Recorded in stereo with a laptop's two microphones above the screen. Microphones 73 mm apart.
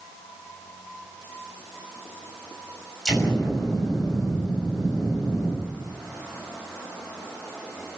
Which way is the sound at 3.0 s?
Centre (ahead or behind).